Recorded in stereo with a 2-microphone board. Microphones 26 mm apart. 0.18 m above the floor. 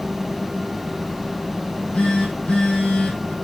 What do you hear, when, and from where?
1.6 s a phone buzzing: 45° left (ahead or behind), 3.5 m